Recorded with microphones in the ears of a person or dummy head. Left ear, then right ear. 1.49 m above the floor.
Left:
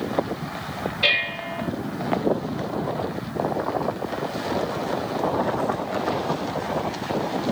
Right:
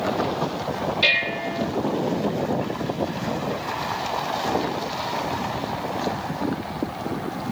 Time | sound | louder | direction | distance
1.0 | dishes clattering | right 1 dB | 80° right | 5 m